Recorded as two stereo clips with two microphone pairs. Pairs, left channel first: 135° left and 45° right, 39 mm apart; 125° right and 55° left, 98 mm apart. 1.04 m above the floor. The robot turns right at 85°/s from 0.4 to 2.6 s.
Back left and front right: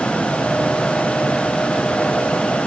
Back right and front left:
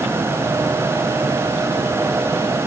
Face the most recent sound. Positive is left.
No sound to turn to.